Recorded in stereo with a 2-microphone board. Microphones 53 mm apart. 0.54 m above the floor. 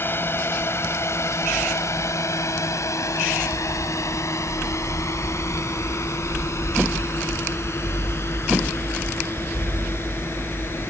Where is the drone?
45° left (ahead or behind).